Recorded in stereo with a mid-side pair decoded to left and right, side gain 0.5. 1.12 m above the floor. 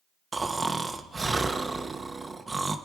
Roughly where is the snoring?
Ahead.